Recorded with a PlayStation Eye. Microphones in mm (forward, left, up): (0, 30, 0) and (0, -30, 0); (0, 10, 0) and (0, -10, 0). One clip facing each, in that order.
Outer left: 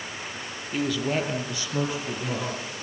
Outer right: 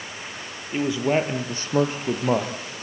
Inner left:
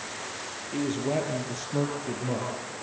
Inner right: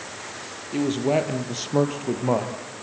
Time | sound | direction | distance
0.7 | a man speaking | 20° right (ahead or behind) | 2 m